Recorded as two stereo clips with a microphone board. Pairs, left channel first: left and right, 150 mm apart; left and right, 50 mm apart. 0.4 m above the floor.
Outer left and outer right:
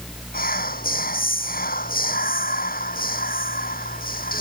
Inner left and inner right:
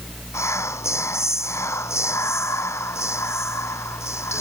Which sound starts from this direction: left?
Whispering, at 0.3 s.